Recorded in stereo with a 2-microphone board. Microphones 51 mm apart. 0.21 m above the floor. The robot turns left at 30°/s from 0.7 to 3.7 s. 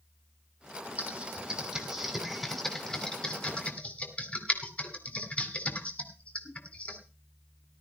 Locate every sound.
1.0 s typing on a keyboard: 30° right (ahead or behind), 2.5 m; by 7.0 s 30° left (ahead or behind), 2.5 m